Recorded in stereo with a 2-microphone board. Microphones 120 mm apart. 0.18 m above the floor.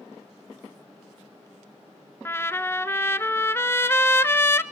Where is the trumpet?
20° left (ahead or behind), 0.8 m.